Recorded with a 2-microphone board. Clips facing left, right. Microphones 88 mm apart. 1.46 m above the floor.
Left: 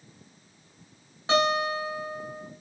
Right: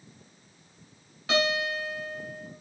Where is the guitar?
30° left (ahead or behind), 6 m.